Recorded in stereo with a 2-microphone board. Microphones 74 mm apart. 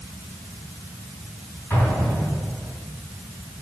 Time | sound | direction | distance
1.7 | an explosion | 25° left (ahead or behind) | 4 m